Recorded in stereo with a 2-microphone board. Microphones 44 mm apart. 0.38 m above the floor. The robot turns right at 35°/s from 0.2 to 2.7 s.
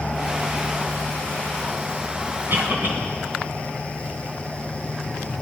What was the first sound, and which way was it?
A cough, 50° right (ahead or behind).